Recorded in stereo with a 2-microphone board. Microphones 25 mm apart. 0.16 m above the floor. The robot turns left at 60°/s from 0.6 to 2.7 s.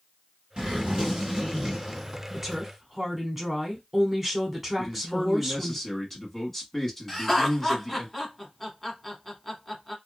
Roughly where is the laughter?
Centre.